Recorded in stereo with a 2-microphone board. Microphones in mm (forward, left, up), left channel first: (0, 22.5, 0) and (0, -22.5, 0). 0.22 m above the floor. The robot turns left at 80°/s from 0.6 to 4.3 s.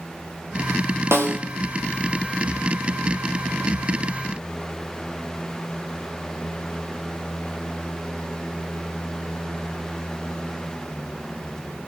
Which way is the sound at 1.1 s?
80° right.